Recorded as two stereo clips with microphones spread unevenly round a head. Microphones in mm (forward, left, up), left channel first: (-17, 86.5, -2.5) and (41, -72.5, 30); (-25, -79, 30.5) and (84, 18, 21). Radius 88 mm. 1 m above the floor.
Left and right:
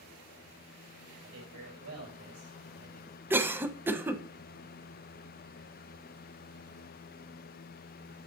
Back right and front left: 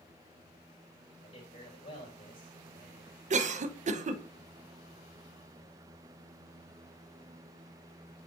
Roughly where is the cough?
Ahead.